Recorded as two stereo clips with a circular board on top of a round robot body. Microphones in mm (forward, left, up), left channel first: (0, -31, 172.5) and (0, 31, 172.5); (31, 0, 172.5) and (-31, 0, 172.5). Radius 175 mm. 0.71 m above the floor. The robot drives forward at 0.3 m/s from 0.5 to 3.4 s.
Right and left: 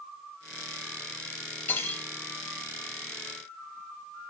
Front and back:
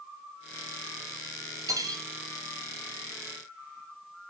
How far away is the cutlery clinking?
About 1.0 m.